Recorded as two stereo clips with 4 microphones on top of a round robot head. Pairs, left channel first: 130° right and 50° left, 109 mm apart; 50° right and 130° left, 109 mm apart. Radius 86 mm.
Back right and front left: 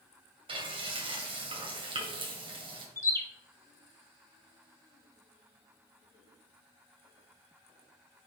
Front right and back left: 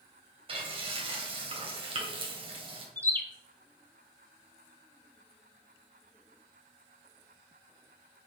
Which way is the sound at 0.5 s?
90° left.